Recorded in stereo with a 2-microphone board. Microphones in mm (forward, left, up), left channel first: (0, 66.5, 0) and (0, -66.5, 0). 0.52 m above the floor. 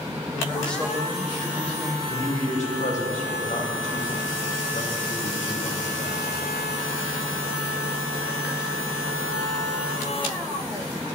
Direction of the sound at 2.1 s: 70° left (ahead or behind).